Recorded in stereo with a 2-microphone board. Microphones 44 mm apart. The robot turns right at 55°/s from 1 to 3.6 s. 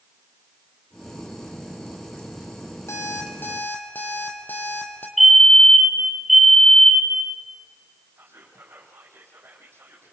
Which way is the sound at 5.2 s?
Centre (ahead or behind).